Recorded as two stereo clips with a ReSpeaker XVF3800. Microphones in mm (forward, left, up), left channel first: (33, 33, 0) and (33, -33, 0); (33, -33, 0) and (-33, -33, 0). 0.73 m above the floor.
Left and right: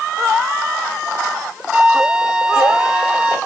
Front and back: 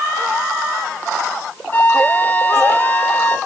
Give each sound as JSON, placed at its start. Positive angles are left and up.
{"t": 1.7, "sound": "a flute", "azimuth_deg": -15, "distance_m": 1.1}